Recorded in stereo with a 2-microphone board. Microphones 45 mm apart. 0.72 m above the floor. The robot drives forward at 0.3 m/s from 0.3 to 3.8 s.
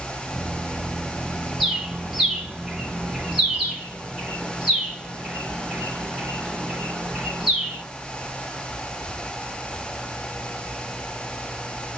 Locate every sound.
1.6 s a bird: 10° right (ahead or behind), 1.0 m; by 7.8 s 5° right (ahead or behind), 1.6 m